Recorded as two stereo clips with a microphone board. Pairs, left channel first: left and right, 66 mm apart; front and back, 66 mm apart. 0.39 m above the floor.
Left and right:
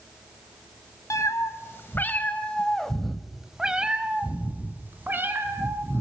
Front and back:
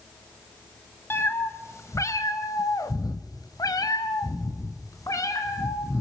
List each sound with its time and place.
1.1 s a cat meowing: 55° left, 1.3 m; by 6.0 s 35° right, 2.5 m